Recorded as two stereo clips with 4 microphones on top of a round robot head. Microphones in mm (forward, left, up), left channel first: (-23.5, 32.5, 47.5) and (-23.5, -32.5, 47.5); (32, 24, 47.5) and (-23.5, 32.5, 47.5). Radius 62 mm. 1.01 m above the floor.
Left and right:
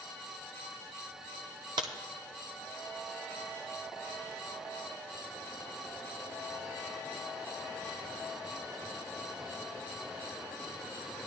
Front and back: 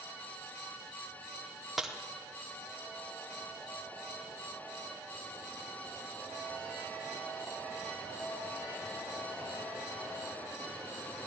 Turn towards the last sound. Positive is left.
turn(degrees=-100)